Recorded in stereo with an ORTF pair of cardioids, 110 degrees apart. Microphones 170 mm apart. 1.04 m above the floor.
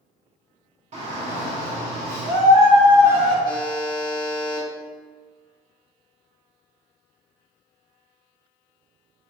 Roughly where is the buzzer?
Ahead left.